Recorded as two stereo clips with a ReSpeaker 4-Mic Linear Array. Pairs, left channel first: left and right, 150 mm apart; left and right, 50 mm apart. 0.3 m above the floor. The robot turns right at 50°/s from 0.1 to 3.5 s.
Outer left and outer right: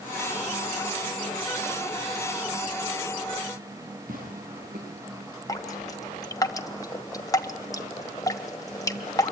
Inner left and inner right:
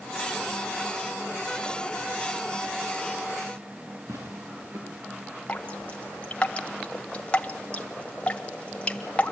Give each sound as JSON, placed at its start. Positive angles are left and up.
{"t": 4.1, "sound": "tearing paper", "side_deg": -70, "distance_m": 8.5}
{"t": 5.5, "sound": "dripping", "side_deg": 25, "distance_m": 1.6}